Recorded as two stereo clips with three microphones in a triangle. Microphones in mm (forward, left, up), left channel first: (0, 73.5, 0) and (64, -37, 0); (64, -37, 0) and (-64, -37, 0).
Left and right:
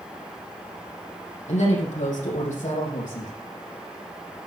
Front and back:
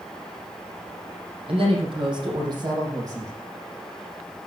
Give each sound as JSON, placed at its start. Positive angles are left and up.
{"t": 1.5, "sound": "a woman speaking", "azimuth_deg": 140, "distance_m": 5.5}